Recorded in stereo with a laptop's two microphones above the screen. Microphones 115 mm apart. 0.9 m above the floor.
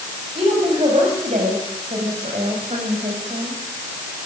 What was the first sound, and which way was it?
A woman speaking, 60° right (ahead or behind).